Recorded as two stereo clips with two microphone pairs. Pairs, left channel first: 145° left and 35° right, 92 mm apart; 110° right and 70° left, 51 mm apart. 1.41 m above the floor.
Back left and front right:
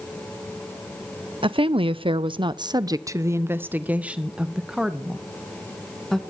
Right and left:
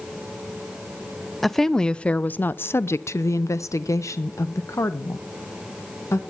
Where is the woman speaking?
25° right, 0.9 m; by 6.2 s 130° right, 2.5 m.